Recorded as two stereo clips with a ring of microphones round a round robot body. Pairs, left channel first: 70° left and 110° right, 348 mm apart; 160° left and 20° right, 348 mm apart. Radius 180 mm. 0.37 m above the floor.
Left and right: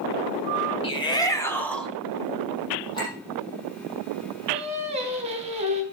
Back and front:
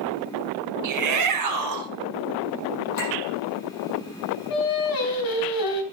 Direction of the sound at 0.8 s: 5° right.